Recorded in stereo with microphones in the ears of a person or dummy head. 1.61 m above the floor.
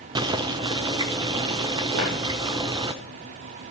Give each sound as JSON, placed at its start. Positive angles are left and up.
{"t": 0.1, "sound": "boiling", "side_deg": -15, "distance_m": 0.5}
{"t": 1.9, "sound": "footsteps", "side_deg": -60, "distance_m": 3.5}